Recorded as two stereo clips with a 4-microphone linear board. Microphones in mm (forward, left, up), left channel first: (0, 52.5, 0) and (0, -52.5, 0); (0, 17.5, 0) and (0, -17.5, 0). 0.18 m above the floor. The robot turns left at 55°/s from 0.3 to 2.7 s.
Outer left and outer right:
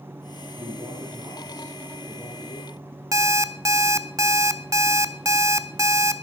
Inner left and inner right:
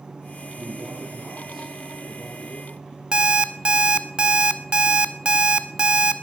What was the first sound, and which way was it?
A man speaking, 110° right.